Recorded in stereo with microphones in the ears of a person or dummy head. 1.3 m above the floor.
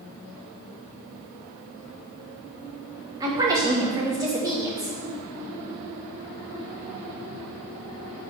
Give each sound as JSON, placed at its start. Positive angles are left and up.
{"t": 3.2, "sound": "a woman speaking", "side_deg": -20, "distance_m": 1.8}